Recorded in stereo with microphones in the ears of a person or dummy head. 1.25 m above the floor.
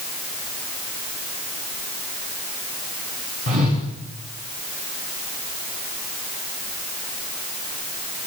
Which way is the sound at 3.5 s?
40° right (ahead or behind).